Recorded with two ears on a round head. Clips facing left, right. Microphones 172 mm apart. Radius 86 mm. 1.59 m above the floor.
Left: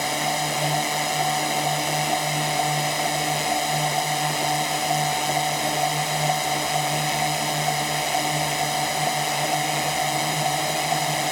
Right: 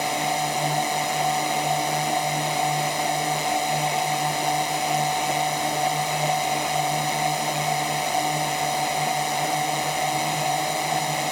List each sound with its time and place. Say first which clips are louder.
0.0 s a drone: right 1 dB; 5° left (ahead or behind)